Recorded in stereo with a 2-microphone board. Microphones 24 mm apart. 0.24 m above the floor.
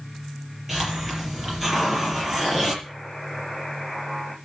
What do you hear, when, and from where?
0.7 s a hiss: 10° right (ahead or behind), 6 m
2.8 s a buzzer: 5° left (ahead or behind), 7.5 m